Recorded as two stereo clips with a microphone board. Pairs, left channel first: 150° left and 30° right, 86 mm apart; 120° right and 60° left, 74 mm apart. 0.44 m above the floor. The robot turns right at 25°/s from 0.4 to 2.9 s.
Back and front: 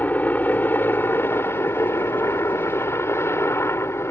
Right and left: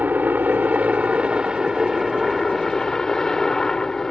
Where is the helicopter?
100° left; by 4.1 s 165° left.